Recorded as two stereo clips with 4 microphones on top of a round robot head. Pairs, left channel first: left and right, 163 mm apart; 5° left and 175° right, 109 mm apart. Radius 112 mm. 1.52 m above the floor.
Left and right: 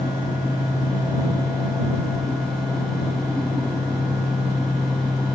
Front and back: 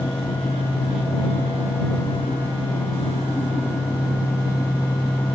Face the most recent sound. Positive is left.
No sound to turn to.